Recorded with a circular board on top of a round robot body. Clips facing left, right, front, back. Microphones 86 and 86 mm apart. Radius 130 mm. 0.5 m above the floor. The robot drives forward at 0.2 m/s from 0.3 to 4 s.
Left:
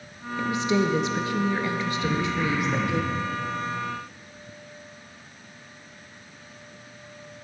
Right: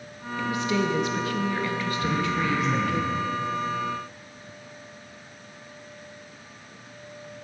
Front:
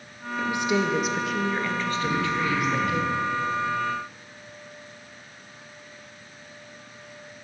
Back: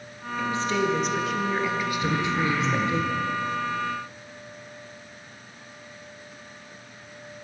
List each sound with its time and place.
0.4 s a woman speaking: 50° left, 0.7 m; by 3.0 s 150° left, 0.7 m
2.0 s throat clearing: 130° right, 0.8 m; by 3.2 s 140° right, 1.0 m